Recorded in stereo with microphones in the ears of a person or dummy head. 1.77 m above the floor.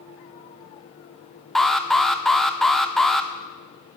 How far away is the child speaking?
I don't hear a child speaking.